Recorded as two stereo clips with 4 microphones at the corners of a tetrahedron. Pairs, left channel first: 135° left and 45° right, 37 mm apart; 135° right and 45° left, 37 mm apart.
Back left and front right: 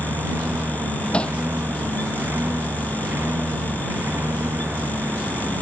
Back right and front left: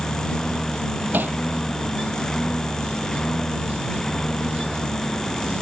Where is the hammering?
75° left.